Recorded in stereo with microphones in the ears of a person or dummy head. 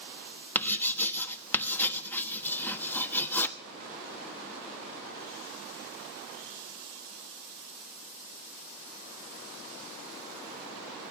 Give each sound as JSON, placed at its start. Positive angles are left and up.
{"t": 0.6, "sound": "writing", "side_deg": 10, "distance_m": 1.1}